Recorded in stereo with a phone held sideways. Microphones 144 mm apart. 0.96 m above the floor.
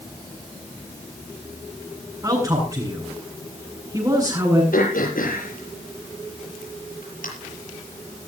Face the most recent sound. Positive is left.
turn(degrees=70)  # may be behind; listen again after turning